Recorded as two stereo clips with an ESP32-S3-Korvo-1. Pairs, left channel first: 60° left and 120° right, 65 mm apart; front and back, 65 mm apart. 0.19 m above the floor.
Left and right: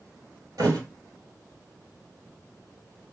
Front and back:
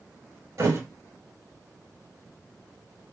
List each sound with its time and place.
0.6 s a thud: 140° right, 1.3 m